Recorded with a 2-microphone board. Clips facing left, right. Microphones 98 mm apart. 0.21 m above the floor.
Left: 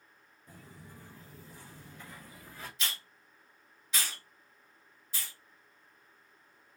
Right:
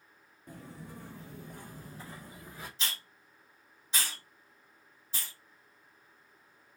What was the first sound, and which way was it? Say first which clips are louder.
Footsteps: right 6 dB; 65° right (ahead or behind).